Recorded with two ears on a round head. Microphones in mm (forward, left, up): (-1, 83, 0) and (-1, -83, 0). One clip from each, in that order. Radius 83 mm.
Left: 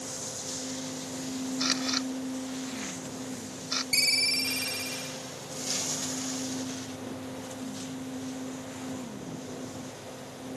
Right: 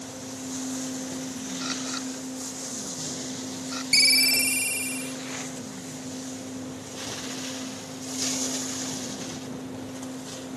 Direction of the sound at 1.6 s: 50° left (ahead or behind).